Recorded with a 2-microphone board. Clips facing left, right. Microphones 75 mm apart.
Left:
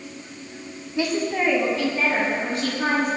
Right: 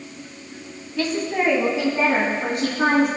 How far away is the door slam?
I don't hear a door slam.